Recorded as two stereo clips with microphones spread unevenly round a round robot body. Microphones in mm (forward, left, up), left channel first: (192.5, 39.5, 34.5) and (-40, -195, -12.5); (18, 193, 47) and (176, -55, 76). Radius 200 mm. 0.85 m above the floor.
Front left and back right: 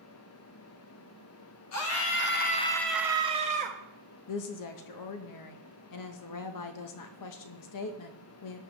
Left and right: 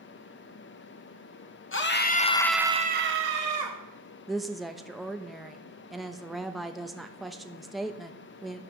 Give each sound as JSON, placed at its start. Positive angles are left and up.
{"t": 1.7, "sound": "a scream", "azimuth_deg": 90, "distance_m": 1.5}
{"t": 4.3, "sound": "a woman speaking", "azimuth_deg": 35, "distance_m": 0.8}